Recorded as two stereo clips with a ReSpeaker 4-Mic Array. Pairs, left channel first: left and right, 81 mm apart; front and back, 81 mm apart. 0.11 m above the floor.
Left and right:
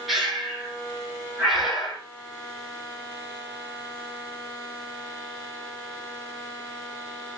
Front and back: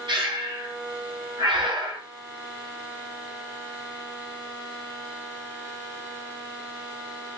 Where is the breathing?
Straight behind, 1.3 m.